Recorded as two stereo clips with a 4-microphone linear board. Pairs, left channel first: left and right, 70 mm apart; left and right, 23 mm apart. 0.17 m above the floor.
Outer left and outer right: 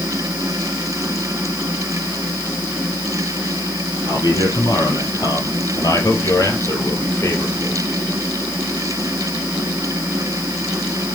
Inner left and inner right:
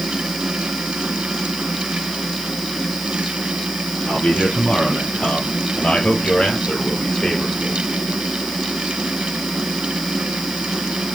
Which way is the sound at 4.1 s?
70° left (ahead or behind).